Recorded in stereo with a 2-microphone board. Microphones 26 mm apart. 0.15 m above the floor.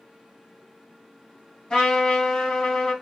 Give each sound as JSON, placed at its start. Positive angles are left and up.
{"t": 1.7, "sound": "a trumpet", "side_deg": 30, "distance_m": 2.0}